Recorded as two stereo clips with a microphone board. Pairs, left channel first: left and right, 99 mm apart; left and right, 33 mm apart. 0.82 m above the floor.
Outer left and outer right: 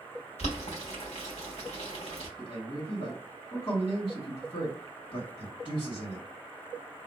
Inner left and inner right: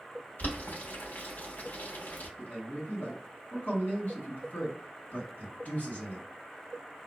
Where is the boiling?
80° left, 1.0 m.